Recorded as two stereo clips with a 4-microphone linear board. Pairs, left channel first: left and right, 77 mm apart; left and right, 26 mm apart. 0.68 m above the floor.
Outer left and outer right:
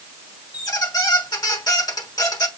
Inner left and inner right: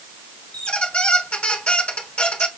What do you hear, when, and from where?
0.5 s a squeak: 60° left (ahead or behind), 1.2 m